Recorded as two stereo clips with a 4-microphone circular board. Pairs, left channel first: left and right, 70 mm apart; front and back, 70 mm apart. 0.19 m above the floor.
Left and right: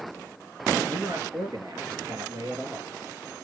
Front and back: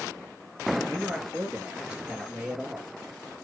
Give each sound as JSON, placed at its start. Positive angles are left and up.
{"t": 0.9, "sound": "a man speaking", "azimuth_deg": -105, "distance_m": 3.5}